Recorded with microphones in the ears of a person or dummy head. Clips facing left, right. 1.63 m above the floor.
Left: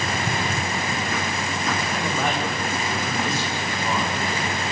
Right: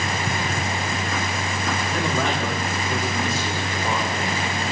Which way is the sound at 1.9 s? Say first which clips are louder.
Right 4 dB; 80° right.